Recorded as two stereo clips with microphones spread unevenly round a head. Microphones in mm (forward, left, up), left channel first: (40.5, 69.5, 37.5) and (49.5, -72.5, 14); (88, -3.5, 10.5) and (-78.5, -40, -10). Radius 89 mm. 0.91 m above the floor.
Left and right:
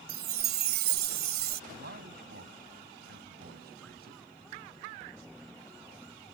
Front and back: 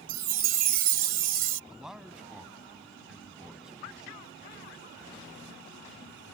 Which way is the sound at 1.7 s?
80° right.